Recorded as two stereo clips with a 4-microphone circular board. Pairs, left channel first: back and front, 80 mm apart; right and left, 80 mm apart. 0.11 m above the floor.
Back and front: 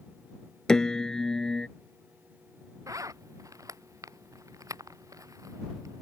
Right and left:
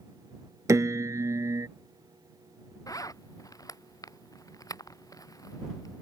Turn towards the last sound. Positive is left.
turn(degrees=-45)